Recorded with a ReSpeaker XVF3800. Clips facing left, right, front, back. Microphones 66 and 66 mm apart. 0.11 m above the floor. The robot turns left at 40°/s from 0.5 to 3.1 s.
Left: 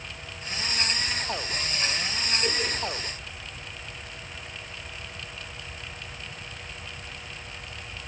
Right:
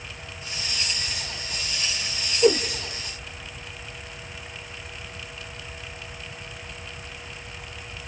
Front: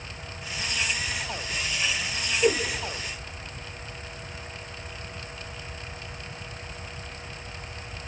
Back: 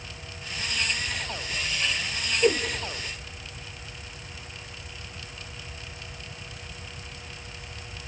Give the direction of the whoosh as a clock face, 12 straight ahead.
3 o'clock.